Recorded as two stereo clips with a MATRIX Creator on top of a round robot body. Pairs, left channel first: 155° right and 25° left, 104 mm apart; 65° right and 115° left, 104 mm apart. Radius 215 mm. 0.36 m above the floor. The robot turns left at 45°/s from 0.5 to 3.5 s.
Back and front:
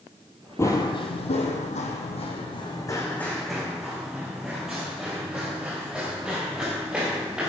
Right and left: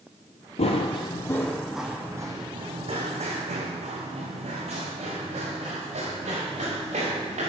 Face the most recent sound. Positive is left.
turn(degrees=105)